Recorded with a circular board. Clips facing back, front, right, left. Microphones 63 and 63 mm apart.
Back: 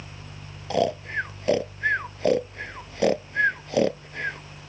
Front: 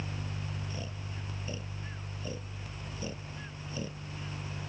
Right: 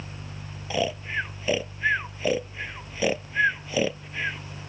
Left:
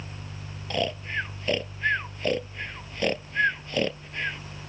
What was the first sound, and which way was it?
Snoring, 175° right.